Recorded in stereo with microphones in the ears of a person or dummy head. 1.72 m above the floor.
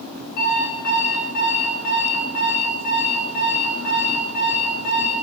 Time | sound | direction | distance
0.4 | an alarm clock | 50° left (ahead or behind) | 4.5 m